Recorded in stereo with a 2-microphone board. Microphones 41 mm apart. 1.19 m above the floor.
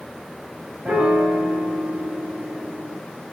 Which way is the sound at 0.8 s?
35° right (ahead or behind).